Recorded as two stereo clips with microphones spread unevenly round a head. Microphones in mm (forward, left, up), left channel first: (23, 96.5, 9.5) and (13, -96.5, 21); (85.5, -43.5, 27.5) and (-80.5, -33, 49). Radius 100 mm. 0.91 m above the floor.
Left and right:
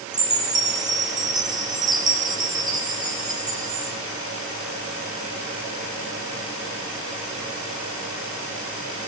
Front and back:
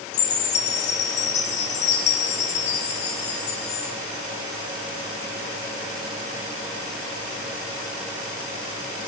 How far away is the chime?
About 3.5 m.